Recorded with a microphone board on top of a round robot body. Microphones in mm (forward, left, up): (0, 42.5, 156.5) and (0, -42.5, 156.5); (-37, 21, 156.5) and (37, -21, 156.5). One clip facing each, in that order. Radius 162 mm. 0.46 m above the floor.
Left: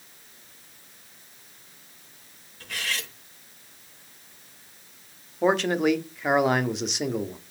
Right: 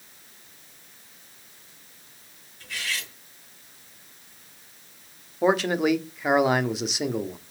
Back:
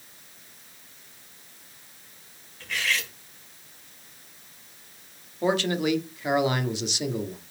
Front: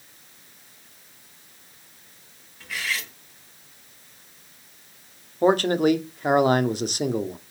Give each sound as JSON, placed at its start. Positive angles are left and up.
{"t": 2.6, "sound": "cutlery clinking", "azimuth_deg": 55, "distance_m": 2.5}
{"t": 5.4, "sound": "a man speaking", "azimuth_deg": 0, "distance_m": 1.3}